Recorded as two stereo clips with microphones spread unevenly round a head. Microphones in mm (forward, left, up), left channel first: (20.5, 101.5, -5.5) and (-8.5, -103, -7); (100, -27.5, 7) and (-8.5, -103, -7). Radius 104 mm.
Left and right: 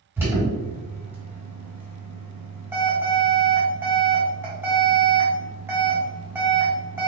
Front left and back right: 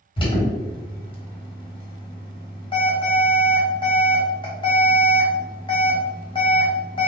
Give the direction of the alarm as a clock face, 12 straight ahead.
1 o'clock.